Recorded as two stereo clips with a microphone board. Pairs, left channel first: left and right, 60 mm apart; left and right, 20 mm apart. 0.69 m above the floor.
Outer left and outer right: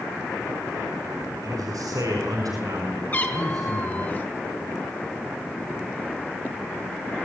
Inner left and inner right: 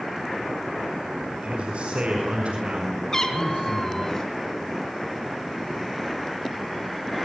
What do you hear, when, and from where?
1.4 s a man speaking: 70° right (ahead or behind), 5 m; by 4.1 s 75° right (ahead or behind), 7 m
3.1 s a cat meowing: 30° left (ahead or behind), 4 m